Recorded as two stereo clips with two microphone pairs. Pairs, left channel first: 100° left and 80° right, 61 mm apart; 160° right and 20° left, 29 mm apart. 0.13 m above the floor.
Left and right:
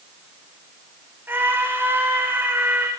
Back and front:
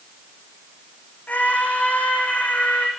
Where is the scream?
130° right, 8 m.